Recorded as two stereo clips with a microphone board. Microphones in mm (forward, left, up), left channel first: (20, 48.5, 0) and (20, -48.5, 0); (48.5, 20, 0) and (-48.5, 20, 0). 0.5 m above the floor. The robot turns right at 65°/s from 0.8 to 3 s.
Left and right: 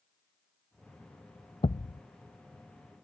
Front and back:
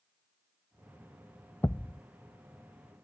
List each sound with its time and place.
1.6 s a thud: 70° left; by 2.0 s 90° left